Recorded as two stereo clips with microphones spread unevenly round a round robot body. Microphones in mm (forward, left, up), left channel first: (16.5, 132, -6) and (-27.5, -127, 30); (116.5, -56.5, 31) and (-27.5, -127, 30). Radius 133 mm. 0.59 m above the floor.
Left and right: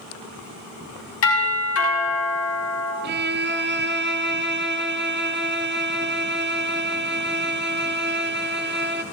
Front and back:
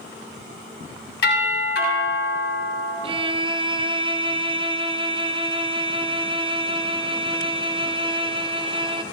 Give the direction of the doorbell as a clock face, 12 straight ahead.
11 o'clock.